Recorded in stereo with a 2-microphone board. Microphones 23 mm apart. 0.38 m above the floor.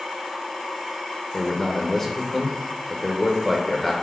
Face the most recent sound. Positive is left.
turn(degrees=20)  # may be behind; listen again after turning